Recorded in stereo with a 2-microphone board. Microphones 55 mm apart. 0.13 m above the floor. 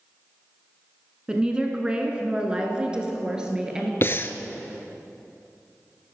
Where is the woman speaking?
15° right (ahead or behind), 1.2 m; by 3.9 s 10° right (ahead or behind), 2.0 m.